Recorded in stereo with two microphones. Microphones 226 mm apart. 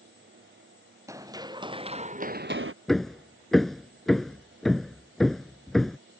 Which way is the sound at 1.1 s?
15° right (ahead or behind).